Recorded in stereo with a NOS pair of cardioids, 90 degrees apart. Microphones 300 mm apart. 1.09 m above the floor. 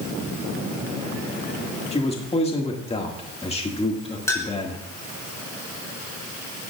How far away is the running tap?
I don't hear a running tap.